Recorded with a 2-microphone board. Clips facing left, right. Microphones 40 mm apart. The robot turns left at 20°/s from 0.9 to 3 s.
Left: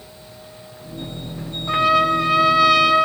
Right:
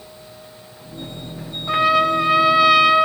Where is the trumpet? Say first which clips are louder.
Even; 5° right (ahead or behind), 0.6 m; by 3.1 s 15° right (ahead or behind), 0.6 m.